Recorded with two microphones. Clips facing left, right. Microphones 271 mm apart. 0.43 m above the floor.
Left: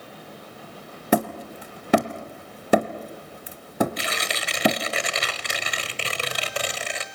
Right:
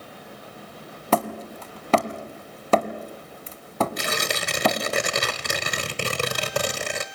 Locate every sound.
1.1 s hammering: 15° left (ahead or behind), 1.1 m
4.0 s tearing paper: 50° right (ahead or behind), 1.1 m